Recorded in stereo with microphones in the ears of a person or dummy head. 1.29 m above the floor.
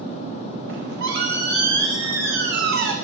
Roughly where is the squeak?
Right.